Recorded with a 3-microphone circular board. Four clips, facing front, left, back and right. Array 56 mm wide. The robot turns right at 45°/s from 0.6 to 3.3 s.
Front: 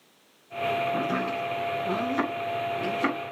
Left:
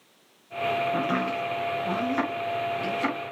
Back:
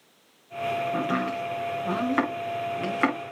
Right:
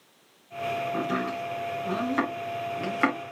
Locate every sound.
0.9 s chopping: 120° left, 6 m; by 3.2 s 140° right, 6 m